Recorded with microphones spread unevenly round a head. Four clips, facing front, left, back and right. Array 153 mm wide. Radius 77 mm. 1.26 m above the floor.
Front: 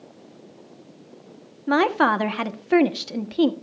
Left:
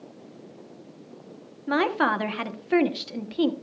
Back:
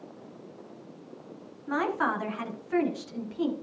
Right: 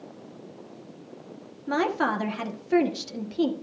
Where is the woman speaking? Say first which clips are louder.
Left 2 dB, front 9 dB; 5° left, 1.0 m.